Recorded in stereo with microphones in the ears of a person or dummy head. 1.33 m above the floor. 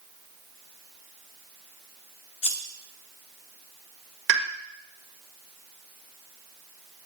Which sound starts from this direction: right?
A pop, at 4.3 s.